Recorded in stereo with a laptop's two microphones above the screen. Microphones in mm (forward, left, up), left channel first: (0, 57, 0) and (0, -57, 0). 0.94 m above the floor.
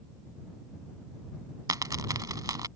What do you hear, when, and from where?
1.7 s a dropped coin: 35° right (ahead or behind)